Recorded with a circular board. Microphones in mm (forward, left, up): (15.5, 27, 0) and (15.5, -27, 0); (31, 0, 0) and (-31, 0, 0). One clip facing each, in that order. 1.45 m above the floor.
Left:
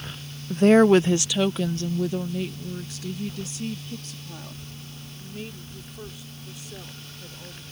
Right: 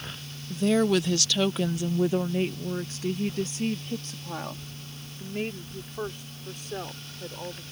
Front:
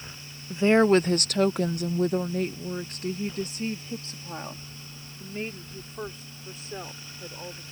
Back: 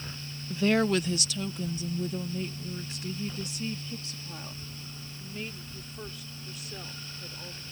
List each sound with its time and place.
0.5 s a woman speaking: 70° left; by 7.6 s 60° right